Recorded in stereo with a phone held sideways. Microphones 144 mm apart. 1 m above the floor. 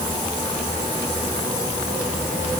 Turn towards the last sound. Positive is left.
No sound to turn to.